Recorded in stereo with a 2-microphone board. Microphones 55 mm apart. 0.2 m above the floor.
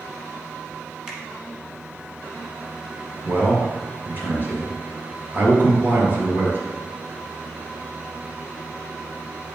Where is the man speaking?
40° right (ahead or behind), 3 m.